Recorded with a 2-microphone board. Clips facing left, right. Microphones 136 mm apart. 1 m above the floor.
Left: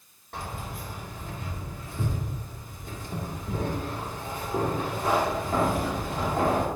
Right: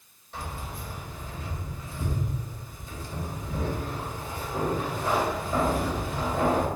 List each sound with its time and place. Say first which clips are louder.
0.3 s keys jangling: left 1 dB; 60° left (ahead or behind), 2 m